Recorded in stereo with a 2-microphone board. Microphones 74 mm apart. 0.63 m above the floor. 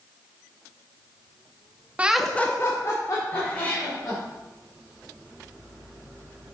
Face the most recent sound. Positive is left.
turn(degrees=20)  # may be behind; listen again after turning